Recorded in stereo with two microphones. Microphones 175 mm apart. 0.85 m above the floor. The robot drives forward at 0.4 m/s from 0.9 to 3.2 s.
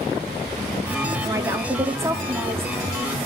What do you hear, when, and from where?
1.2 s a woman speaking: 20° right (ahead or behind), 1.8 m; by 2.7 s 15° right (ahead or behind), 2.5 m